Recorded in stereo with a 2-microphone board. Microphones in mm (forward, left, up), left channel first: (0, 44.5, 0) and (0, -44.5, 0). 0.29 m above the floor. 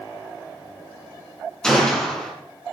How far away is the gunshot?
About 3.5 m.